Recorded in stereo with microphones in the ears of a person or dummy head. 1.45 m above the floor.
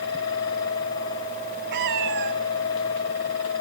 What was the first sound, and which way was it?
A cat meowing, 40° right (ahead or behind).